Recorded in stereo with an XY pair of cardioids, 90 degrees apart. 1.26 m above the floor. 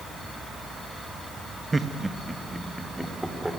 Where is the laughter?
20° right, 1.5 m; by 3.5 s 5° right, 4 m.